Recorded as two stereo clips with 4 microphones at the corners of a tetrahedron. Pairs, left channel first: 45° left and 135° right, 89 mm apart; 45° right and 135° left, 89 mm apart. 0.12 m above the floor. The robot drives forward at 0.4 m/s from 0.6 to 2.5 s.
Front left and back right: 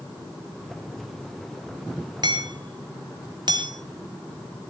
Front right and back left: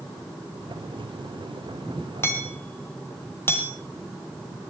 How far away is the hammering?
About 2.5 m.